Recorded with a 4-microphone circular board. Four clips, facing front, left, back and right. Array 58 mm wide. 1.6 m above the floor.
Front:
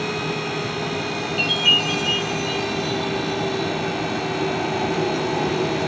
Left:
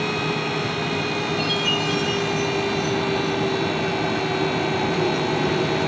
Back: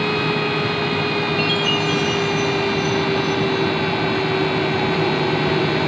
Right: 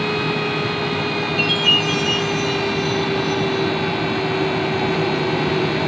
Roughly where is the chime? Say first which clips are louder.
Right 4 dB, back 1 dB; ahead.